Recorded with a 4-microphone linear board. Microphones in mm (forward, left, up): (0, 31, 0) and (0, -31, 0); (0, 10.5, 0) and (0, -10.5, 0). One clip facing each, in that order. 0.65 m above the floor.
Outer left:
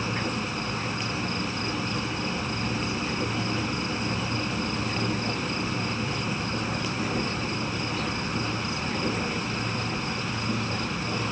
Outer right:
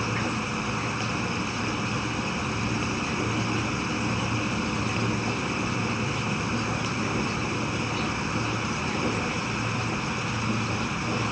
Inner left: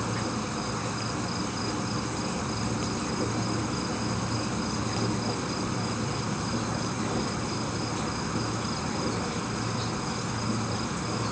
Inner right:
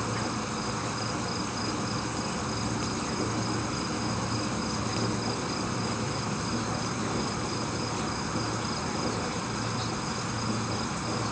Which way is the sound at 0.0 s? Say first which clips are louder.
Outer right 1 dB, even; 10° right (ahead or behind).